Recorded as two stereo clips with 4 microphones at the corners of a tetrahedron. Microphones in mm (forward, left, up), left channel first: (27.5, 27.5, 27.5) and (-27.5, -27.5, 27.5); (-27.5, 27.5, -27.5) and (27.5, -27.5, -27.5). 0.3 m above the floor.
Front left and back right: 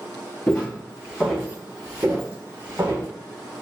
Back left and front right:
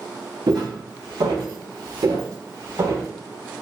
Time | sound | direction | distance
0.5 | footsteps | 25° right | 1.4 m